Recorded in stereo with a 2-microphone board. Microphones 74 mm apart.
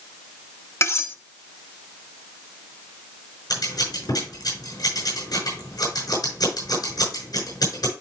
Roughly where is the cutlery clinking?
Left.